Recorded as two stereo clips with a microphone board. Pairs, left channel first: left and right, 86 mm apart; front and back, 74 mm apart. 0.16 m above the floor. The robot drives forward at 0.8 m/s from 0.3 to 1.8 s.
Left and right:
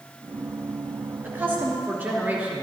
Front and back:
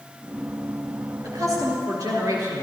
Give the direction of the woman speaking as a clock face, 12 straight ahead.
5 o'clock.